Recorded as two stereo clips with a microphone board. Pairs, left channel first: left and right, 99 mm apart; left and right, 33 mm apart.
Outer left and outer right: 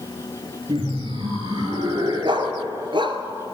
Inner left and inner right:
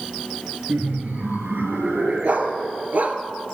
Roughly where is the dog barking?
Right.